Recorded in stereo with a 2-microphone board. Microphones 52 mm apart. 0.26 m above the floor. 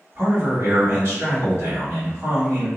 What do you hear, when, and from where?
0.1 s a man speaking: 45° right (ahead or behind), 1.9 m